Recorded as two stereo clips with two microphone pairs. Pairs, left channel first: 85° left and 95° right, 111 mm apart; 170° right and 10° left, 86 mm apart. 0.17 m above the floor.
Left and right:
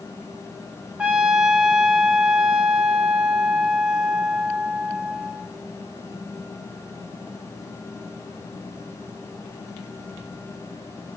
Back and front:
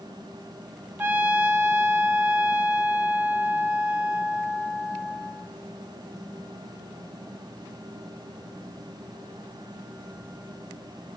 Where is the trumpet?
25° right, 0.7 m.